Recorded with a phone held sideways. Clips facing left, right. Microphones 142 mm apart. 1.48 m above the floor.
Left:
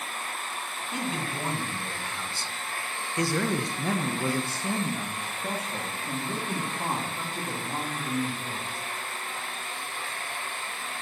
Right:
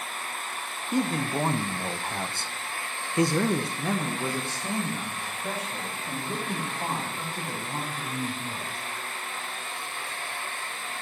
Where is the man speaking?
45° right (ahead or behind), 1.4 m; by 8.8 s 25° left (ahead or behind), 4 m.